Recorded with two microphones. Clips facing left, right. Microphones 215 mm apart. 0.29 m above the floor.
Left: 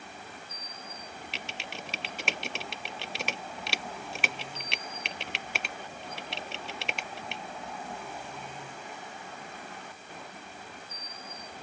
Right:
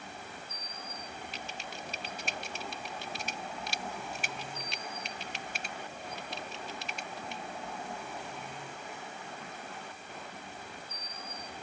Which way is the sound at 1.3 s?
70° left (ahead or behind).